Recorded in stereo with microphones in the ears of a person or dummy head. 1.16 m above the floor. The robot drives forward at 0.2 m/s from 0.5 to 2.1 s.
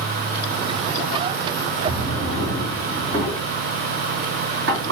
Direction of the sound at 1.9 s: 55° right (ahead or behind).